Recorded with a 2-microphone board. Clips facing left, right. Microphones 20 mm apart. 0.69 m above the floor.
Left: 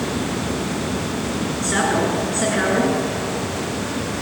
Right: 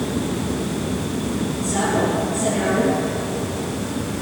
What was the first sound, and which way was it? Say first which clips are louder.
A woman speaking: left 1 dB; 55° left (ahead or behind).